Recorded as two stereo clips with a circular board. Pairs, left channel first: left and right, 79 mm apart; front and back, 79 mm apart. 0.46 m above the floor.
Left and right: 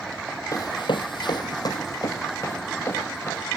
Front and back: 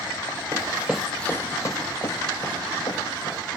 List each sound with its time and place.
0.5 s running footsteps: 135° left, 1.1 m; by 3.5 s 30° left, 4 m